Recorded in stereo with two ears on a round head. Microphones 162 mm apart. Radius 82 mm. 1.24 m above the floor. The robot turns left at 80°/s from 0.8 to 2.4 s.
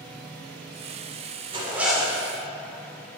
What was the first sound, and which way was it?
A zipper, 150° right.